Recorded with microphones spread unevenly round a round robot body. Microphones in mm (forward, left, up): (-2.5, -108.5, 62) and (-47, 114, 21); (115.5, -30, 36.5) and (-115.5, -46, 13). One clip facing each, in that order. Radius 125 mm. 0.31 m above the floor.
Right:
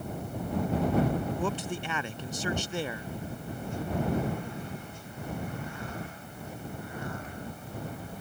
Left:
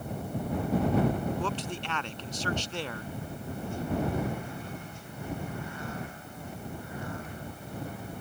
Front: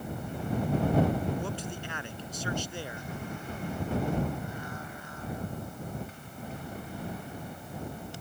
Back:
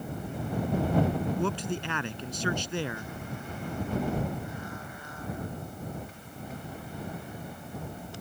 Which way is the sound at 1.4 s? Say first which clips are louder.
Right 2 dB, back 6 dB; 160° right.